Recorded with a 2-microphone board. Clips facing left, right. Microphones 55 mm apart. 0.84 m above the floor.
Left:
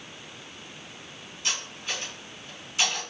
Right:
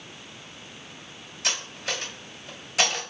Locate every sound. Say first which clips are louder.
1.4 s cutlery clinking: right 2 dB; 80° right, 2.5 m